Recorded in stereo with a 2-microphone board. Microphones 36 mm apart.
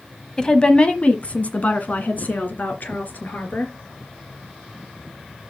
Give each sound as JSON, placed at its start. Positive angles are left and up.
{"t": 0.4, "sound": "a woman speaking", "side_deg": 20, "distance_m": 1.0}